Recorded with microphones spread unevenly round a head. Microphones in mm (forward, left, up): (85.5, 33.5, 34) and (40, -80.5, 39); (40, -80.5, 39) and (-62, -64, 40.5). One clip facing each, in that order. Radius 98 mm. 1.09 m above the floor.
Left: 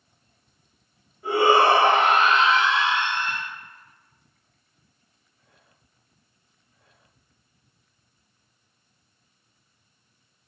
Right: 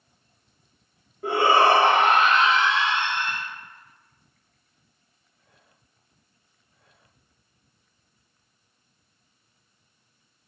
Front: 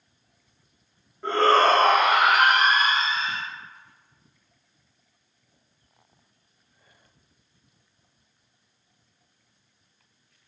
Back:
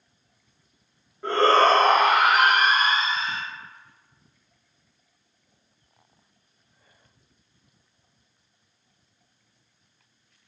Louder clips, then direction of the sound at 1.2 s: Left 1 dB, back 1 dB; 105° right.